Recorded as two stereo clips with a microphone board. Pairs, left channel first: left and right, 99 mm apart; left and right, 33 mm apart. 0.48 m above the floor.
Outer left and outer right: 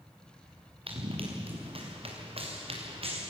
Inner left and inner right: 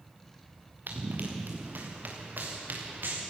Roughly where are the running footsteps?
Right.